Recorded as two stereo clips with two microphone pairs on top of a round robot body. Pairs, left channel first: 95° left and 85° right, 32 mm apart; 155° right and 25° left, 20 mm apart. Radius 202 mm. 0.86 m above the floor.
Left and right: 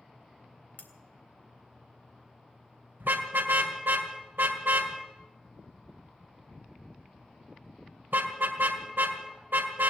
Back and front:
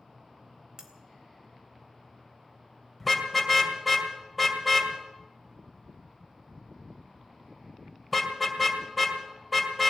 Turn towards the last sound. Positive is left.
turn(degrees=-75)